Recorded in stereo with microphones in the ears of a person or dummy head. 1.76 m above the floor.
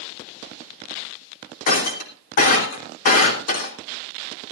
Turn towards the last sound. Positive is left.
turn(degrees=50)  # may be behind; listen again after turning